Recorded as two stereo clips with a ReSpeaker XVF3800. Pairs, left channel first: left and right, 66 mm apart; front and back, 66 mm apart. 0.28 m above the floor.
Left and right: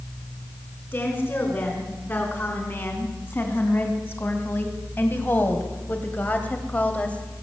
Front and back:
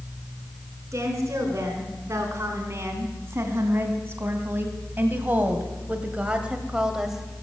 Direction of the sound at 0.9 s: 140° left.